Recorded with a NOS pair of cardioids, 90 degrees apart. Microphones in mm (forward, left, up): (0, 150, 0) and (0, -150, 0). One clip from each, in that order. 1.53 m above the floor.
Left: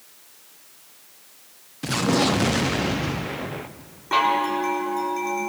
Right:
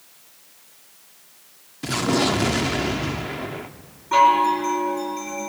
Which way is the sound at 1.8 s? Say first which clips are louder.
Even; straight ahead.